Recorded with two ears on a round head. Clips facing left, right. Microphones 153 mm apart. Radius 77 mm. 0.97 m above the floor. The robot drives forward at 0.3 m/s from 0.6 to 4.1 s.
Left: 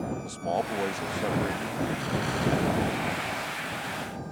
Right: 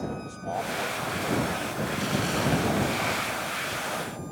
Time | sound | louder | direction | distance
0.2 | a man speaking | left 3 dB | 40° left (ahead or behind) | ?
2.0 | an explosion | right 2 dB | 25° right (ahead or behind) | ?